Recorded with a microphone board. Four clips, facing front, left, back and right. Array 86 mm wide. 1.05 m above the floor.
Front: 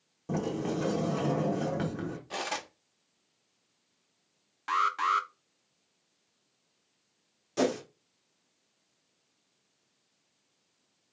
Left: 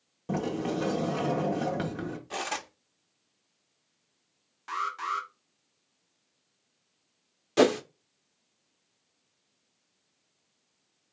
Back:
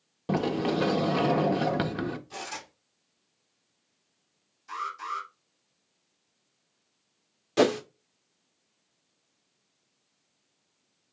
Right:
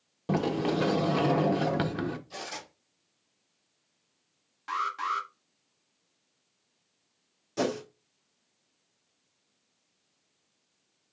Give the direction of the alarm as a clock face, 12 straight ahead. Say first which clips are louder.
Right 1 dB, front 7 dB; 12 o'clock.